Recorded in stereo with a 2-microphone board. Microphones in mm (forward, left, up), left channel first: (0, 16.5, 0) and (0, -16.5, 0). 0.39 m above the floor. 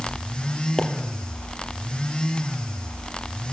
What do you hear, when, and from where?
0.8 s a pop: 20° left (ahead or behind), 2.5 m